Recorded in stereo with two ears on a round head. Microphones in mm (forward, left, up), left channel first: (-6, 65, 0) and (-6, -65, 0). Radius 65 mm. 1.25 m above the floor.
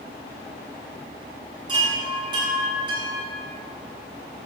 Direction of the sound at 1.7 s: 35° right (ahead or behind).